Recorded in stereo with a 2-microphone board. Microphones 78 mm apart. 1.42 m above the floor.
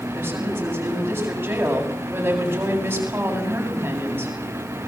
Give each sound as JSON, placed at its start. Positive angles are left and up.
{"t": 0.1, "sound": "a woman speaking", "side_deg": -25, "distance_m": 9.0}